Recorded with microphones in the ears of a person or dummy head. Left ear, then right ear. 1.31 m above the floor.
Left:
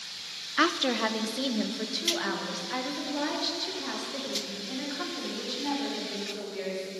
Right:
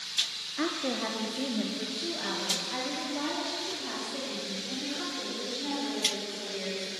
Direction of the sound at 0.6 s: 45° left (ahead or behind).